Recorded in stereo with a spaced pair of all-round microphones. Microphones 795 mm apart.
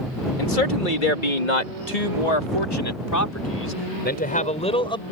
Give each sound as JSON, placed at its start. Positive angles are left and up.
{"t": 0.4, "sound": "a man speaking", "side_deg": 75}